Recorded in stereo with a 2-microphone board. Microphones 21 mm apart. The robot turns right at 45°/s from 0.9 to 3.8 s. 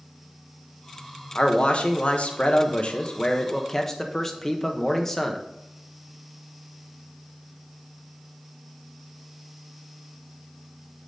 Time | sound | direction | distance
1.4 | a man speaking | 50° left | 1.1 m